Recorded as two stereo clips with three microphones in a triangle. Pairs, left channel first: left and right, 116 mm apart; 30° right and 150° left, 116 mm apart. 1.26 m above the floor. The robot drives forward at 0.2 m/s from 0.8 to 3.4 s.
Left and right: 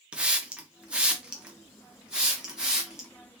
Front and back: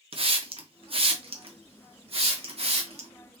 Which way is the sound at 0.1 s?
170° right.